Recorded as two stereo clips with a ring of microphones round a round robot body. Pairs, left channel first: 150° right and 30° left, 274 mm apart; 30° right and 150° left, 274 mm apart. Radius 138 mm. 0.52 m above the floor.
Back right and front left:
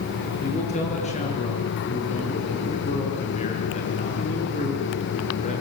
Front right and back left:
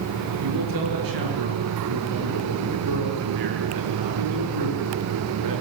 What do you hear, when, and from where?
0.4 s a man speaking: 145° left, 8.5 m